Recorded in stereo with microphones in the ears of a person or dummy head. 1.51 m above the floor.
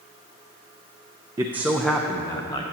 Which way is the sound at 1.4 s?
15° right (ahead or behind).